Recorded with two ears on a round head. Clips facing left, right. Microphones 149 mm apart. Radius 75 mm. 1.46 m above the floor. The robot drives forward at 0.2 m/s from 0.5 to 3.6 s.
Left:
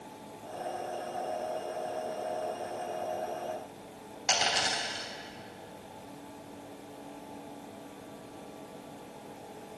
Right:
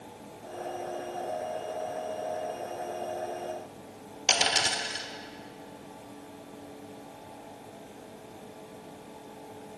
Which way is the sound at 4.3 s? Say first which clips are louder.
Right 1 dB; 35° right (ahead or behind).